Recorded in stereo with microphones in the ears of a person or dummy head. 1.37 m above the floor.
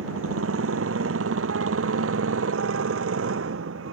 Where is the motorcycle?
90° right; by 3.9 s 85° right.